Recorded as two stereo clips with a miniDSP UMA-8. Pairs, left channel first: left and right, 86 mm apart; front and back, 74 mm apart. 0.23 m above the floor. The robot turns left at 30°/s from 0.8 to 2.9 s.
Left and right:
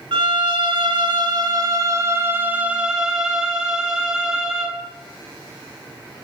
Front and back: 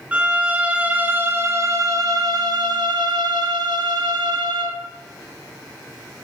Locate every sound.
0.1 s a violin: 110° right, 0.8 m; by 4.8 s 170° right, 0.8 m